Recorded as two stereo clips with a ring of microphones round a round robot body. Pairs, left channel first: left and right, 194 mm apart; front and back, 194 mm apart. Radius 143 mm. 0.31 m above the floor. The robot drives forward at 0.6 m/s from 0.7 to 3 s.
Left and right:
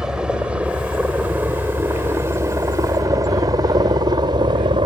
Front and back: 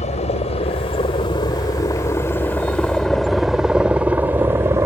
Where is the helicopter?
5° right; by 4.9 s 120° right.